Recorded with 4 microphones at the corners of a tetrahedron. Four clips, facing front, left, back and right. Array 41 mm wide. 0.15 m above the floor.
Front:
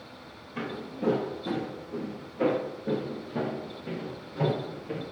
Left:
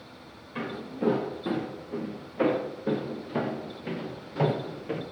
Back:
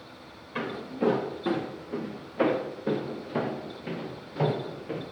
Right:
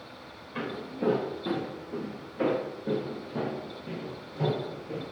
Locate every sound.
0.6 s footsteps: straight behind, 4 m; by 5.0 s 110° left, 3 m